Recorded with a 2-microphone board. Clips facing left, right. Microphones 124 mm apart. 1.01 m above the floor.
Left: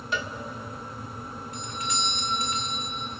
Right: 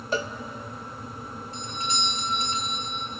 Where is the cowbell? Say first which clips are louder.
Right 4 dB; 40° right (ahead or behind), 0.8 m.